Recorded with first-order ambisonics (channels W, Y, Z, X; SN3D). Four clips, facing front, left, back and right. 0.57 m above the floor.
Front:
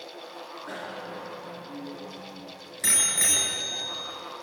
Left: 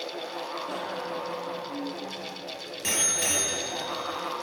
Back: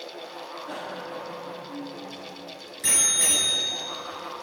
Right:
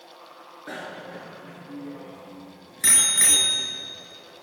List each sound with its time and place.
0.7 s a bicycle bell: 75° right, 6.5 m